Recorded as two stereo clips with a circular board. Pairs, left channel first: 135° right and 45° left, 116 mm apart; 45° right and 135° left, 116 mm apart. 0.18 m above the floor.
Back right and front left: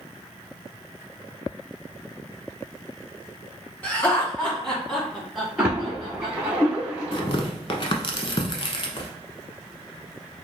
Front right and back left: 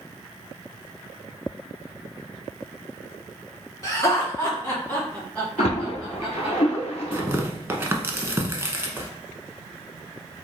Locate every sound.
3.8 s laughter: 75° right, 1.9 m; by 6.6 s 65° left, 1.7 m
5.6 s a splash: 35° right, 1.4 m
7.1 s tearing paper: 160° right, 0.7 m